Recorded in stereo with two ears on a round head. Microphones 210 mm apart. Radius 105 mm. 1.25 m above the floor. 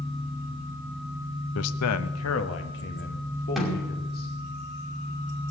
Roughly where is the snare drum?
Centre.